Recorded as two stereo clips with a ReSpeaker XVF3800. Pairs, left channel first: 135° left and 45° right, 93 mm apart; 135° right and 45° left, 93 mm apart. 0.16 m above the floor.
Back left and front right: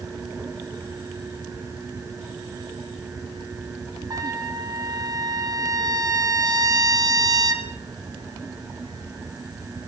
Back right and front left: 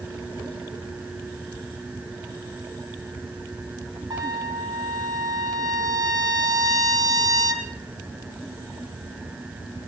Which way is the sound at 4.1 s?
Straight ahead.